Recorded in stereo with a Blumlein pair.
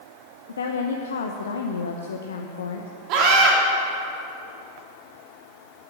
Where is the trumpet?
No trumpet in this recording.